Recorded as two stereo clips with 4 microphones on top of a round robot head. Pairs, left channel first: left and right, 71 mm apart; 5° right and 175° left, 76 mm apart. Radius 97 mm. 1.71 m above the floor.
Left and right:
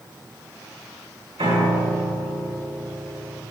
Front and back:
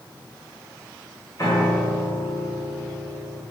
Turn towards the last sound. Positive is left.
turn(degrees=-70)